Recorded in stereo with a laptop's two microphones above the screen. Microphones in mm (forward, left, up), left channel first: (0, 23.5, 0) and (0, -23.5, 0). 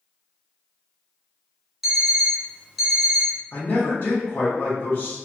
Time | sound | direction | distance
1.8 | an alarm clock | 5° right (ahead or behind) | 0.9 m
3.5 | a man speaking | 40° left (ahead or behind) | 1.2 m